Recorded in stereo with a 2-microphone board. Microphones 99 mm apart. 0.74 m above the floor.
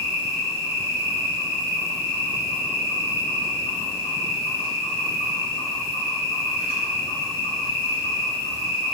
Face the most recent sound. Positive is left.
turn(degrees=85)